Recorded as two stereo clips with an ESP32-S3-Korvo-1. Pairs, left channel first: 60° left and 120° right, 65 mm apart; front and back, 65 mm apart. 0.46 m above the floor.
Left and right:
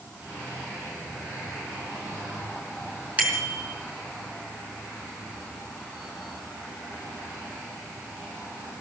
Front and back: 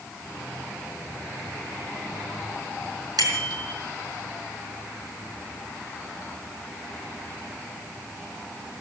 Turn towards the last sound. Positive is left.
turn(degrees=170)